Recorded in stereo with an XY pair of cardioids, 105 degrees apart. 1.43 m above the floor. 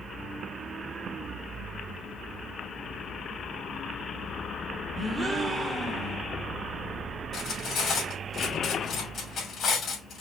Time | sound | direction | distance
5.0 | a gasp | 20° right | 1.1 m
7.3 | cutlery clinking | 50° left | 2.5 m